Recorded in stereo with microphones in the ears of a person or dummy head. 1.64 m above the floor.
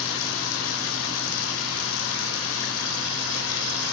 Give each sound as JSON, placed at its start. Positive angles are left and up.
{"t": 0.0, "sound": "running water", "side_deg": 70, "distance_m": 1.2}